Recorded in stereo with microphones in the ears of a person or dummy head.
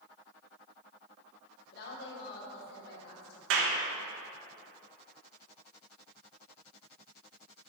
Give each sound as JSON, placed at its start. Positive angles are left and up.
{"t": 1.7, "sound": "a woman speaking", "side_deg": 60, "distance_m": 2.0}
{"t": 3.5, "sound": "a clap", "side_deg": -75, "distance_m": 1.3}